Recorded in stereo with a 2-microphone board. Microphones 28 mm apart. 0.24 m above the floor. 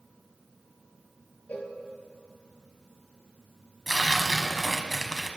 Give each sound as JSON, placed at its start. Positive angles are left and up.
{"t": 1.5, "sound": "a cowbell", "side_deg": 75, "distance_m": 2.5}
{"t": 3.9, "sound": "tearing paper", "side_deg": 5, "distance_m": 1.1}